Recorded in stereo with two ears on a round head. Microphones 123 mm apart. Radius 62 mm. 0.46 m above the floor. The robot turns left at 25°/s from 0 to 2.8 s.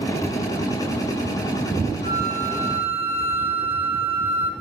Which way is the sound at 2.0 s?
60° left (ahead or behind).